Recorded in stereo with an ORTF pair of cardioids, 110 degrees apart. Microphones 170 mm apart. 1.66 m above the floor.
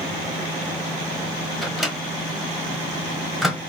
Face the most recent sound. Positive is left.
turn(degrees=0)